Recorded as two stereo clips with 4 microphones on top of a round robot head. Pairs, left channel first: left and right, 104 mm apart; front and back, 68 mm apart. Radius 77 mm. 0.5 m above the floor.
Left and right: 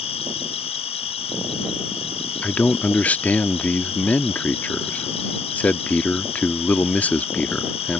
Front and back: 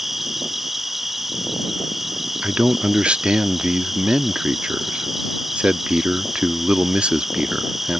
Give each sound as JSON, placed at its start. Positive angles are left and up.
{"t": 0.0, "sound": "an insect", "azimuth_deg": 95}
{"t": 2.4, "sound": "a man speaking", "azimuth_deg": 140}